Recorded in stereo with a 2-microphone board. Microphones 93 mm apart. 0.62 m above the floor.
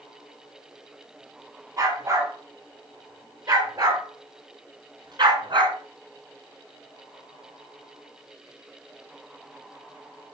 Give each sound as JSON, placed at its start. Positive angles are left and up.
{"t": 1.8, "sound": "a dog barking", "side_deg": -40, "distance_m": 5.5}